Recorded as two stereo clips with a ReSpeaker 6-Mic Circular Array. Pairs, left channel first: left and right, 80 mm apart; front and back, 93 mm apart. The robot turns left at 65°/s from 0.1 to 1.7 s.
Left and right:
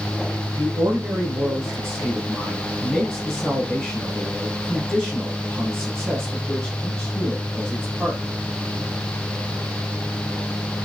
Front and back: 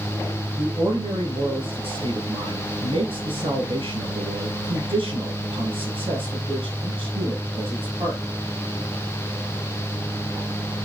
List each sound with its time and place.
0.6 s a man speaking: 110° right, 8 m; by 8.2 s 175° left, 8 m